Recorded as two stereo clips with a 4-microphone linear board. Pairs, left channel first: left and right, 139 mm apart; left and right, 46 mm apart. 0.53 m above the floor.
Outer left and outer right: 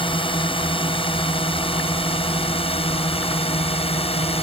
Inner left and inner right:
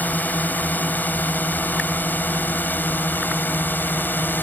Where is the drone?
40° left (ahead or behind); by 4.4 s 45° left (ahead or behind).